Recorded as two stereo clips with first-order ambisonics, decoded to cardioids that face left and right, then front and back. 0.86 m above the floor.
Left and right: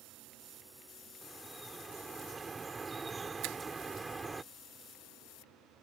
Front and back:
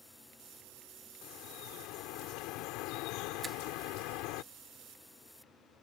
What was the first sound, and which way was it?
Dripping, 10° right.